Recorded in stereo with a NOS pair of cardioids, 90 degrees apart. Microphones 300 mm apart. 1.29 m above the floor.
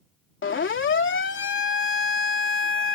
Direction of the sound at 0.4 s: 40° left.